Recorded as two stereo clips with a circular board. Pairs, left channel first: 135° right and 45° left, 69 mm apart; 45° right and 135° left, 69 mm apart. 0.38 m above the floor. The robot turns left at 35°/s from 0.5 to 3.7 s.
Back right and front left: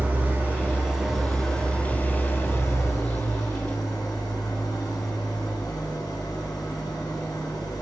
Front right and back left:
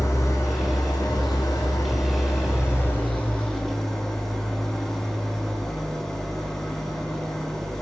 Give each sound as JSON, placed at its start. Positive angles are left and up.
{"t": 0.0, "sound": "an engine running", "azimuth_deg": -15, "distance_m": 1.5}